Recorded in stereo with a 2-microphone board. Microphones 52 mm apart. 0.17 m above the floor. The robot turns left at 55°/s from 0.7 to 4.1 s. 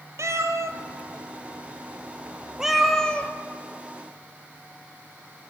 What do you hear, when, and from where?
0.2 s a cat meowing: 65° right (ahead or behind), 1.0 m; by 3.3 s 25° left (ahead or behind), 1.0 m